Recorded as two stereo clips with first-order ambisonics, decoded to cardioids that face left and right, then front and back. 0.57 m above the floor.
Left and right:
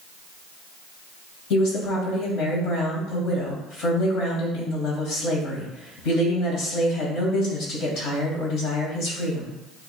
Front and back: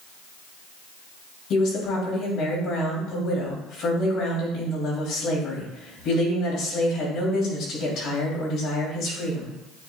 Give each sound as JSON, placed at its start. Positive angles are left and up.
{"t": 1.5, "sound": "a woman speaking", "azimuth_deg": 50, "distance_m": 3.0}